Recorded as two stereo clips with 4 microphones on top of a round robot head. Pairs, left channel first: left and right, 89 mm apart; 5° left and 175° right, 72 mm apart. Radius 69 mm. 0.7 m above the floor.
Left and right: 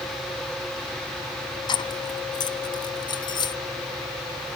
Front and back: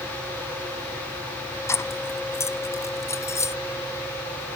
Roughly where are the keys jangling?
Ahead left.